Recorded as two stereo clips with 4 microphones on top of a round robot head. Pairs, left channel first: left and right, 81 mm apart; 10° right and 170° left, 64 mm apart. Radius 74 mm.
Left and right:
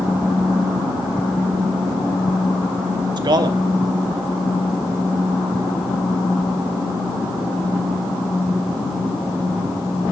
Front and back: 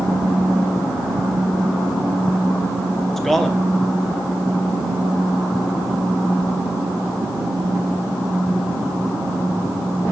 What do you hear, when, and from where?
3.2 s a man speaking: 100° right, 1.0 m